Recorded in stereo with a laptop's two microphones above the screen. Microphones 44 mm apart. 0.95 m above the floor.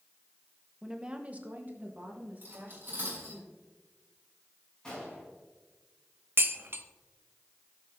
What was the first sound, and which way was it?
A woman speaking, 10° right (ahead or behind).